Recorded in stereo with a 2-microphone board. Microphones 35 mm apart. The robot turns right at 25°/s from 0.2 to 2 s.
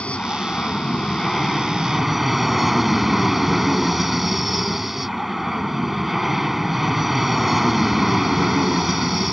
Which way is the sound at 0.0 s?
140° left.